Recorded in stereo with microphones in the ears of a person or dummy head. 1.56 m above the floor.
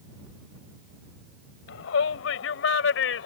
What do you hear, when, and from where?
1.7 s a shout: 75° left (ahead or behind)